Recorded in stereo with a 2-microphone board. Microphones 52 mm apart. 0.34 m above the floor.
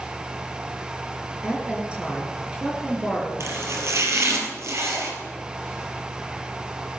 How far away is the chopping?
About 3.5 m.